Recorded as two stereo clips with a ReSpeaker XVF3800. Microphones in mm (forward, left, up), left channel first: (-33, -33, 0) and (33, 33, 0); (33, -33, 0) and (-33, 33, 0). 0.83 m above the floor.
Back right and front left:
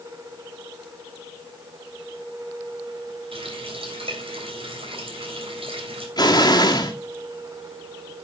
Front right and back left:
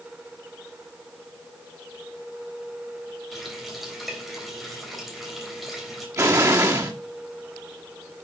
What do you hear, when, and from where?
3.3 s a running tap: 45° left, 3 m
6.2 s an explosion: 175° right, 2.5 m